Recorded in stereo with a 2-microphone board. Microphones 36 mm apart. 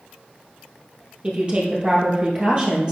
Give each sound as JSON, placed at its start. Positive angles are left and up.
{"t": 1.2, "sound": "a woman speaking", "side_deg": -25, "distance_m": 2.5}